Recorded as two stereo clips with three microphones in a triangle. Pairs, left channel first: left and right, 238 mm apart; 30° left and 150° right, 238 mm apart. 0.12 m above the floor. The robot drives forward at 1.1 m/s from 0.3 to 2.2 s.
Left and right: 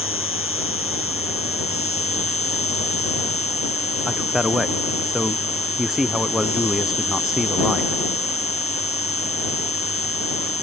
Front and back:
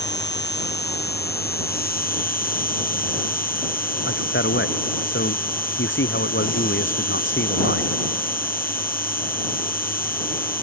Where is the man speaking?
Straight ahead.